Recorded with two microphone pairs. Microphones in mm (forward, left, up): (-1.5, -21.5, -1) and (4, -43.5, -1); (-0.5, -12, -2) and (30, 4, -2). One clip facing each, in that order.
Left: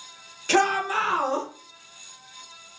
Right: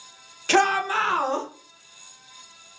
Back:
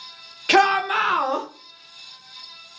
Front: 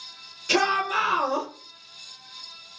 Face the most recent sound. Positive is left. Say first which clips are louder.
# right 1 dB, back 5 dB
turn(degrees=-145)